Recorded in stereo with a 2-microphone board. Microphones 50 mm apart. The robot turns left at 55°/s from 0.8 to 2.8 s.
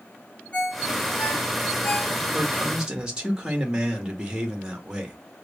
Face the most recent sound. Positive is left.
turn(degrees=-20)  # may be behind; listen again after turning